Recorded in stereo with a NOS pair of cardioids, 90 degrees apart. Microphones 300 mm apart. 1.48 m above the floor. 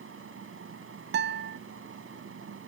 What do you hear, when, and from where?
0.0 s a fan: 45° right
1.1 s a guitar: 35° right